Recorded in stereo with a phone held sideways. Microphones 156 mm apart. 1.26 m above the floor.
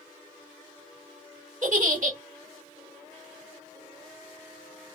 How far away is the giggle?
About 1.5 m.